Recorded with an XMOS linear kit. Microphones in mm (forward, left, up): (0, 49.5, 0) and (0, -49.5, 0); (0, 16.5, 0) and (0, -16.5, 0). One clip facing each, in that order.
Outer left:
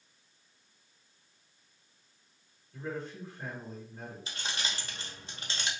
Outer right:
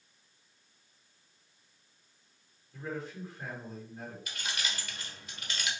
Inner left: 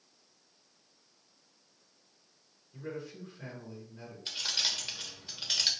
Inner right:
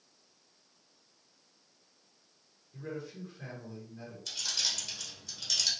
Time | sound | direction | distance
2.7 | a man speaking | 5° right (ahead or behind) | 1.4 m
4.3 | keys jangling | 30° left (ahead or behind) | 0.7 m